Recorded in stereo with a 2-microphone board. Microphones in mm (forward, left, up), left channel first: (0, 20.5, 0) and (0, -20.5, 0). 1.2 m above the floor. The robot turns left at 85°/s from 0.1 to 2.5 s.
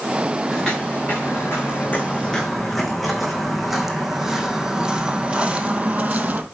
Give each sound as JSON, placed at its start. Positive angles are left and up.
{"t": 0.5, "sound": "footsteps", "side_deg": 0, "distance_m": 5.5}